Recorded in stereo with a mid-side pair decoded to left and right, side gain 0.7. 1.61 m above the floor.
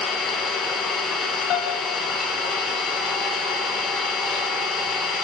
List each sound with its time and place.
0.0 s an engine running: 35° left, 1.5 m
1.5 s a piano: 60° left, 0.8 m